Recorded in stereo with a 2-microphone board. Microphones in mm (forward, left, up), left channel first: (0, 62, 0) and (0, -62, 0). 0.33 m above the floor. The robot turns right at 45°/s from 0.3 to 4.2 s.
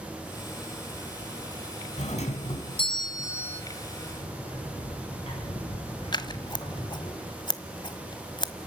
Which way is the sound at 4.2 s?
50° left (ahead or behind).